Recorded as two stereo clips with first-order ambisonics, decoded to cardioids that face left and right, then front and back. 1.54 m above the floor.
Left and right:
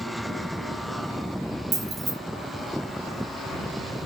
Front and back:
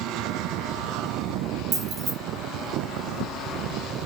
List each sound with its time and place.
1.7 s keys jangling: 140° right, 0.8 m